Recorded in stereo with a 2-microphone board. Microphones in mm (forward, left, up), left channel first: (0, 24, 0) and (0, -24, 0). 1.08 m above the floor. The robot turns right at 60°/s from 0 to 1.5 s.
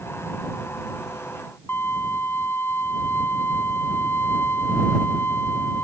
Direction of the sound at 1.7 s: 55° left (ahead or behind).